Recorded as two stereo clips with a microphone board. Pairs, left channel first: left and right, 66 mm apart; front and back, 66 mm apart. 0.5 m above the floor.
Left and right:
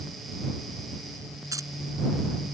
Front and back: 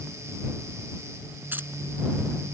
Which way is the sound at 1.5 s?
120° right.